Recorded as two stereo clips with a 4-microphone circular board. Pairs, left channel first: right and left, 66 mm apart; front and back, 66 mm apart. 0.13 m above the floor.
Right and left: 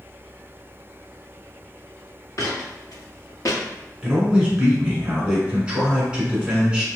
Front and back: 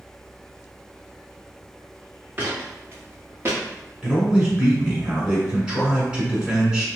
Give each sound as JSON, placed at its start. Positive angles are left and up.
{"t": 2.4, "sound": "footsteps", "azimuth_deg": -120, "distance_m": 1.8}
{"t": 4.0, "sound": "a man speaking", "azimuth_deg": 130, "distance_m": 1.1}